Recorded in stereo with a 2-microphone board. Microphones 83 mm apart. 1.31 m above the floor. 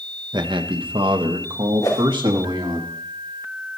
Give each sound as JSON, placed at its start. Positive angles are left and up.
{"t": 0.3, "sound": "a man speaking", "side_deg": -65, "distance_m": 1.0}
{"t": 1.8, "sound": "a whoosh", "side_deg": 50, "distance_m": 3.5}